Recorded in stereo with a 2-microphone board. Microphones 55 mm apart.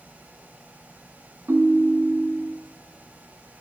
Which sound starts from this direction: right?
A ringtone, at 1.5 s.